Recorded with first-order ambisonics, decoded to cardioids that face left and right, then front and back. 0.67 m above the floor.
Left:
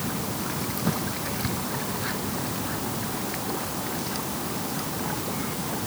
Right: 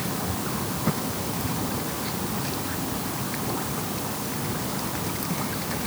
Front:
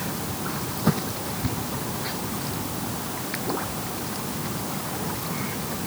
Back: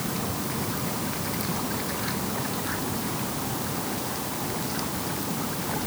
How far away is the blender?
No blender in this recording.